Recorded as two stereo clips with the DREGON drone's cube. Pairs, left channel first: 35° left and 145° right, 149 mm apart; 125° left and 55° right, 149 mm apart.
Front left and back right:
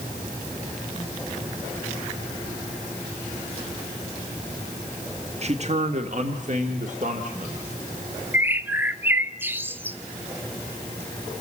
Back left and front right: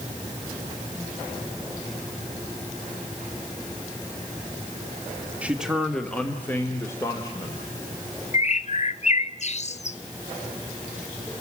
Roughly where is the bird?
Behind left.